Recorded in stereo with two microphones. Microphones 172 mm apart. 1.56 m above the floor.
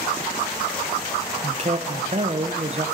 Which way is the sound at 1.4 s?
40° right (ahead or behind).